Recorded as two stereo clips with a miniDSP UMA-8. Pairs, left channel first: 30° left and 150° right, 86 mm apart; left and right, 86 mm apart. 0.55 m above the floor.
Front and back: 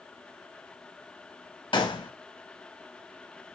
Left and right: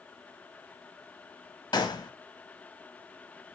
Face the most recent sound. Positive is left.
turn(degrees=55)